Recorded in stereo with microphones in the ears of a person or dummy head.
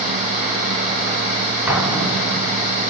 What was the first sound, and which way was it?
An explosion, 15° right (ahead or behind).